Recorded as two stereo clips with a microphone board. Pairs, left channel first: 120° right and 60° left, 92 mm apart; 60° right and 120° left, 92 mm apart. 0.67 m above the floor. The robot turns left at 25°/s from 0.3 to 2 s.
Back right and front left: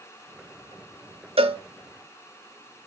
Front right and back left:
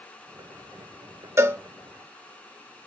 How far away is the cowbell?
About 0.7 m.